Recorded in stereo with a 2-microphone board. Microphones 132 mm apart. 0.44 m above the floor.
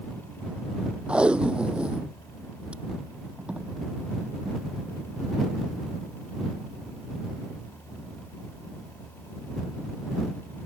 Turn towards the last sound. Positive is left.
turn(degrees=-10)  # may be behind; listen again after turning